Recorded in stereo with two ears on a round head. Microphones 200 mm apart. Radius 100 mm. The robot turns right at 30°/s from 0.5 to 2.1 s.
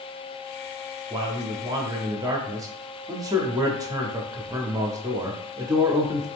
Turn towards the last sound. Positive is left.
turn(degrees=-15)  # may be behind; listen again after turning